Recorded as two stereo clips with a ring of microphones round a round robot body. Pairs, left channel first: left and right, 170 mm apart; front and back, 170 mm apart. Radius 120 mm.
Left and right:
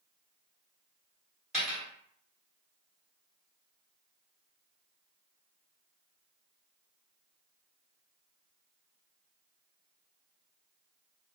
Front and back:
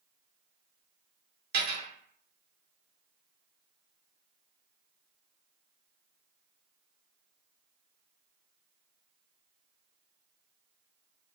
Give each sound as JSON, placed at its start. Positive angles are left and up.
{"t": 1.5, "sound": "a dropped coin", "azimuth_deg": 180, "distance_m": 1.6}